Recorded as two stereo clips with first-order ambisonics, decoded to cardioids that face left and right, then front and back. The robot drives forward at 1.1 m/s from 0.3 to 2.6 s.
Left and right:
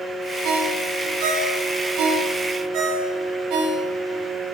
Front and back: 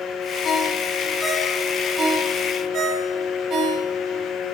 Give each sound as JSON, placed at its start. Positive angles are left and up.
{"t": 0.4, "sound": "a ringtone", "azimuth_deg": -65, "distance_m": 2.0}